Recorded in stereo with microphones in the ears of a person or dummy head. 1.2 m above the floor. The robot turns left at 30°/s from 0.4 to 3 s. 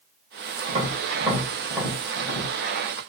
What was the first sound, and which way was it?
Tapping, 35° right (ahead or behind).